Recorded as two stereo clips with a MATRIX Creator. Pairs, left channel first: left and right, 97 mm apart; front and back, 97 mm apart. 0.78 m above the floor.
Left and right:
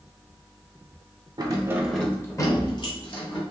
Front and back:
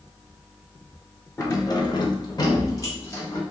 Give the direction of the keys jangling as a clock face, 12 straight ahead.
2 o'clock.